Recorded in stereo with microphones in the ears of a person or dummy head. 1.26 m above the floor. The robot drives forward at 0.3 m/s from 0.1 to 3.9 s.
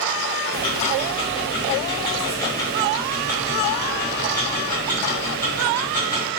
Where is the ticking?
40° left (ahead or behind), 0.5 m; by 6.3 s 15° left (ahead or behind), 1.4 m.